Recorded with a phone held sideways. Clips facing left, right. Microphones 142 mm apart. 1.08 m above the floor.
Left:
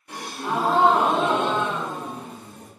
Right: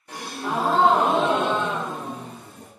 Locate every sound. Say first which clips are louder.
0.1 s a gasp: even; 30° right (ahead or behind), 1.4 m